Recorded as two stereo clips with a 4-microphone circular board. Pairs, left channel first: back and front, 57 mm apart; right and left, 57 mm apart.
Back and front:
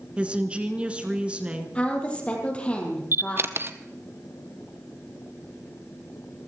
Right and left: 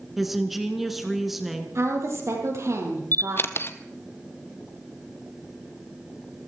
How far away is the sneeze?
No sneeze in this recording.